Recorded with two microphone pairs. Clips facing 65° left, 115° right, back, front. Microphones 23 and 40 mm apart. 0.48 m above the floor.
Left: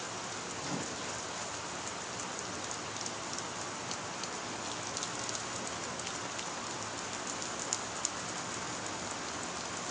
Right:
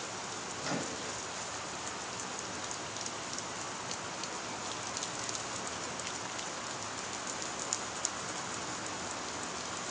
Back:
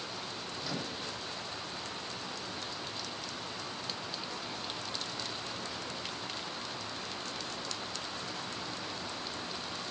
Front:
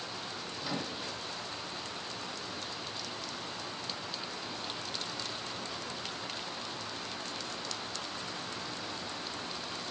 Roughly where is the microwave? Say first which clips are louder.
Right 3 dB, front 2 dB; right.